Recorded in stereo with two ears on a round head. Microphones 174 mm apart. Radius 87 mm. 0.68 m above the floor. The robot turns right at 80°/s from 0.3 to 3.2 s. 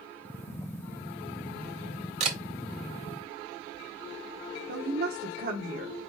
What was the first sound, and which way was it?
A camera shutter, 35° right (ahead or behind).